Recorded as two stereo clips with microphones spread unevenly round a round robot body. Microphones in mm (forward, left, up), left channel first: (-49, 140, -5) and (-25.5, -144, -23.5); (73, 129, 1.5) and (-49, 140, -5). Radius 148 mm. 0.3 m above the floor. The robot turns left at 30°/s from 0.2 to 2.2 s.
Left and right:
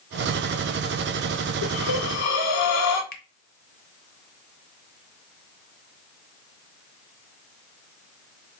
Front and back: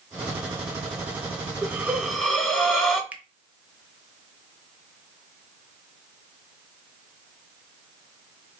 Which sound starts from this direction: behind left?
A finger snap, at 3.1 s.